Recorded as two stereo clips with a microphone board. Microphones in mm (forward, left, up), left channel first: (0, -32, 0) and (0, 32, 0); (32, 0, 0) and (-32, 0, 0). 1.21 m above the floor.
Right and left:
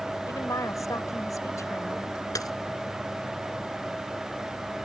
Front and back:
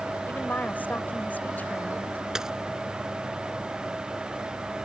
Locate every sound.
0.3 s a woman speaking: 65° right
2.4 s a dropped coin: 100° right